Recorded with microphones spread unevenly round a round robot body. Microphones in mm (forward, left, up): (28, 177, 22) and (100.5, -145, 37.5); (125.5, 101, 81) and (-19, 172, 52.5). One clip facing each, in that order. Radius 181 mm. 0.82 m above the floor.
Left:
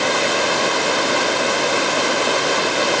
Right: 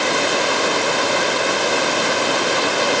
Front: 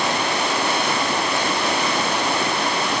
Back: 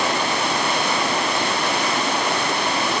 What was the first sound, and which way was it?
Only background noise.